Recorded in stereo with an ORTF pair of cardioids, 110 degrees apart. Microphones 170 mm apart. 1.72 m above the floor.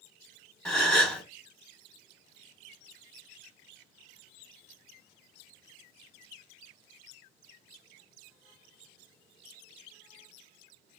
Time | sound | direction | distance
0.7 | a gasp | 5° left | 1.2 m